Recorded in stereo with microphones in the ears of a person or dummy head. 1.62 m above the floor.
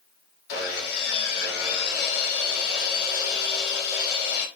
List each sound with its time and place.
0.5 s sawing: 55° left (ahead or behind), 0.8 m